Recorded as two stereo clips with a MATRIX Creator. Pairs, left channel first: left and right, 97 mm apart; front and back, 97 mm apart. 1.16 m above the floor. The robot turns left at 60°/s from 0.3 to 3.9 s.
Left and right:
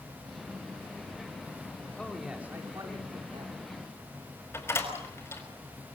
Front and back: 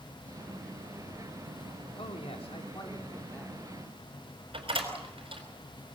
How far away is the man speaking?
About 3.5 m.